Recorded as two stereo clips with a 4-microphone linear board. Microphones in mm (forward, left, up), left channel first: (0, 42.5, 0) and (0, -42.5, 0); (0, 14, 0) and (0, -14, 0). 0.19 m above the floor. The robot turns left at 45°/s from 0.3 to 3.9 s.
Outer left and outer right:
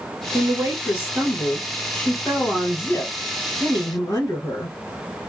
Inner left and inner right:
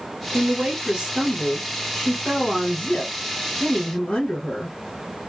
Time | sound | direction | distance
0.3 | a woman speaking | 130° right | 1.7 m